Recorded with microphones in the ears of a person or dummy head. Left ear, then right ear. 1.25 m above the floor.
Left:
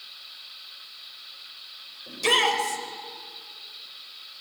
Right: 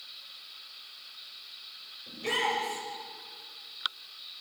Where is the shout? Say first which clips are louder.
Left 8 dB; 60° left (ahead or behind), 5 m.